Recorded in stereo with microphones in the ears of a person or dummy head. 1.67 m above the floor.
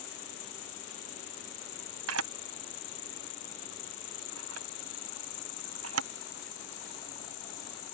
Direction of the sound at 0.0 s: 60° left (ahead or behind).